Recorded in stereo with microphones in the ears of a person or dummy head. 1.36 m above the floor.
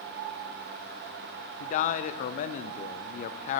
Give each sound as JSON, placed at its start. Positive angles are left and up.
{"t": 1.6, "sound": "a man speaking", "side_deg": 45, "distance_m": 0.6}